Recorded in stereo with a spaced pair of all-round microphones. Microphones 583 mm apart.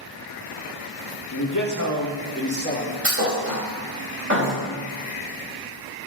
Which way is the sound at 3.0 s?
20° right (ahead or behind).